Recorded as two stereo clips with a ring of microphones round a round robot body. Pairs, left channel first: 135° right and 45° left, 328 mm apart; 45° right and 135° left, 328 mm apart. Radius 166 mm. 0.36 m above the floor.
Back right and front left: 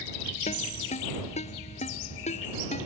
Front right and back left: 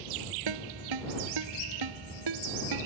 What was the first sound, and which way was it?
A ringtone, 155° left.